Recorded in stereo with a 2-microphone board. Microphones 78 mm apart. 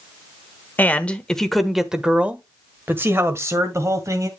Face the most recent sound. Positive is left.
turn(degrees=-45)  # may be behind; listen again after turning